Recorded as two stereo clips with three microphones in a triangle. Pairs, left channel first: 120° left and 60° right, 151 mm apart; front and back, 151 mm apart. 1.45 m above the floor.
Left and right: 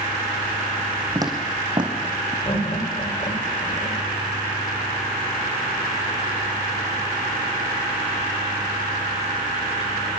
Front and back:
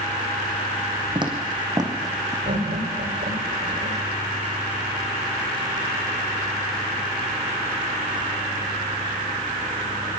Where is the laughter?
170° left, 7 m.